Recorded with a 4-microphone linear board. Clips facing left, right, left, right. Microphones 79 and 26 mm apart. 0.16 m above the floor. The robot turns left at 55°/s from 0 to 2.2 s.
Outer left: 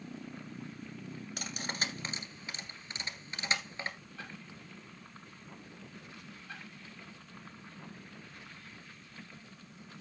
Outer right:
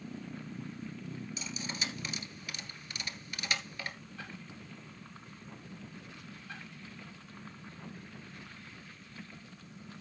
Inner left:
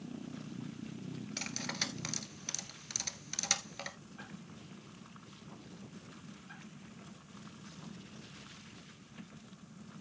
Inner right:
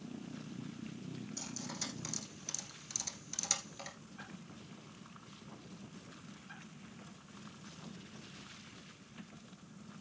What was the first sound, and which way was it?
Cutlery clinking, 60° left (ahead or behind).